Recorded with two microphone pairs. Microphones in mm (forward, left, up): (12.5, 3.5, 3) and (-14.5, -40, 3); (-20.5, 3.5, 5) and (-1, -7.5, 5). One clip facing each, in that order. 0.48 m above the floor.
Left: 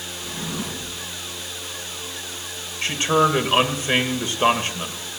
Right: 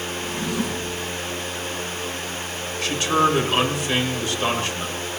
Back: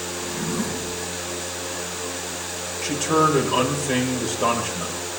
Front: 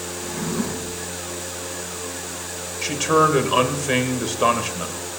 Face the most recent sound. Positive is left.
turn(degrees=5)